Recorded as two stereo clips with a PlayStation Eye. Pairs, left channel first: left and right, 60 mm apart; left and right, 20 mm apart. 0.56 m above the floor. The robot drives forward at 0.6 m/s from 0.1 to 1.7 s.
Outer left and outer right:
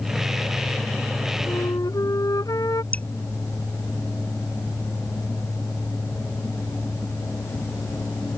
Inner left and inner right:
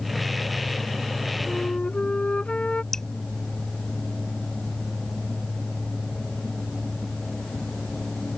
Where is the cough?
I don't hear a cough.